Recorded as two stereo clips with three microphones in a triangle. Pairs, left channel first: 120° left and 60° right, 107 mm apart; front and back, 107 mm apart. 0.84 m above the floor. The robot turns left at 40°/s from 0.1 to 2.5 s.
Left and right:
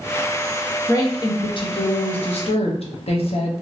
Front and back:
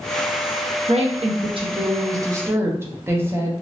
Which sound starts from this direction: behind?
A woman speaking, at 0.9 s.